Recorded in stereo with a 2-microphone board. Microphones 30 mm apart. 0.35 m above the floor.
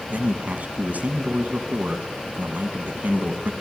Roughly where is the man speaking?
Right.